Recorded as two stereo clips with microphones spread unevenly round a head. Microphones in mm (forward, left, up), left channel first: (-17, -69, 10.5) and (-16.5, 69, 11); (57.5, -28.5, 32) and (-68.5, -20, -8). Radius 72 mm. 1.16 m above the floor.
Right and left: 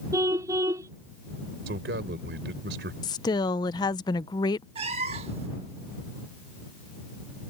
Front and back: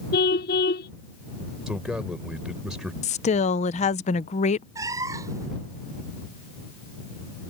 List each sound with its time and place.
0.1 s a car horn: 20° left
1.7 s a man speaking: 90° left
3.0 s a woman speaking: 40° right
4.8 s a cat meowing: 95° left